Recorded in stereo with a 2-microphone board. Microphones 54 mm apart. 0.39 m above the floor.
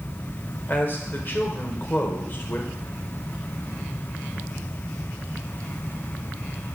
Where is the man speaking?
40° left (ahead or behind), 1.0 m.